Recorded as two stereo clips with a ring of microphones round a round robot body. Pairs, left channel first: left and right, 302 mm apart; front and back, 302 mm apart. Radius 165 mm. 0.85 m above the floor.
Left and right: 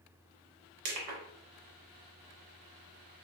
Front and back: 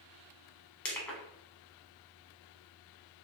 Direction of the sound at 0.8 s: 85° right.